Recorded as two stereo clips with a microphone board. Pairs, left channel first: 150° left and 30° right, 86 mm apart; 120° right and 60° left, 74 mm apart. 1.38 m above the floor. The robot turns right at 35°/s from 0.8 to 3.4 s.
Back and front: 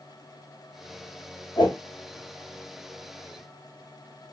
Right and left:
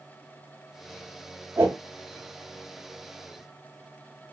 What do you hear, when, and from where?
1.6 s a whoosh: 120° left, 0.7 m; by 1.8 s 130° left, 0.7 m